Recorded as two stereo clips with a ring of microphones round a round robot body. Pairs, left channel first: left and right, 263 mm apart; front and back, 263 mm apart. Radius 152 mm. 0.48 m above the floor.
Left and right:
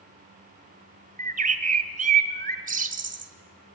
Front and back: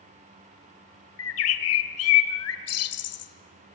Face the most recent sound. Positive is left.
turn(degrees=-30)